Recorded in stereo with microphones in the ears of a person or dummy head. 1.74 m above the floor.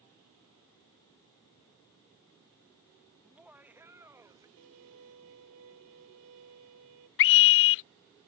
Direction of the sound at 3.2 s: 5° right (ahead or behind).